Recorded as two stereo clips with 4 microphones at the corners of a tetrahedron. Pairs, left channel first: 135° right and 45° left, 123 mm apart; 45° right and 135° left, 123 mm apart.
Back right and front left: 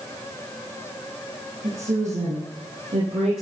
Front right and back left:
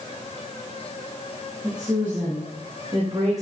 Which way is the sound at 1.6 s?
50° left.